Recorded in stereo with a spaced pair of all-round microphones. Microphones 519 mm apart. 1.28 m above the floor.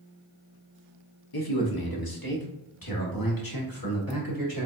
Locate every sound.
1.3 s a man speaking: 45° left (ahead or behind), 1.0 m; by 4.7 s 40° left (ahead or behind), 3 m